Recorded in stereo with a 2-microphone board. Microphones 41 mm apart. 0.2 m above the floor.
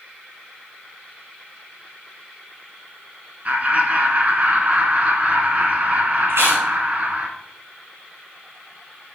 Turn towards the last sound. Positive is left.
turn(degrees=-70)  # may be behind; listen again after turning